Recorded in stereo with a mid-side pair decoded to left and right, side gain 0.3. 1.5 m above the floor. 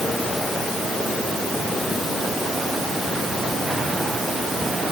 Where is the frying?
No frying in this recording.